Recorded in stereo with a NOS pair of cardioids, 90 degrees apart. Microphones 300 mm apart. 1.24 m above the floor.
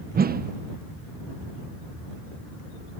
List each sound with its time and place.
0.1 s a whoosh: 30° right